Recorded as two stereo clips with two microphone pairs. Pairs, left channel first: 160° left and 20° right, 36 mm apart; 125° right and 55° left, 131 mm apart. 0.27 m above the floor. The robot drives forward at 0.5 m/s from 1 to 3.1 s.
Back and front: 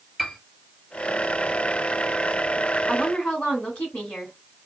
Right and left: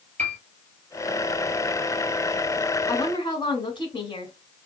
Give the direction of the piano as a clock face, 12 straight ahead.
10 o'clock.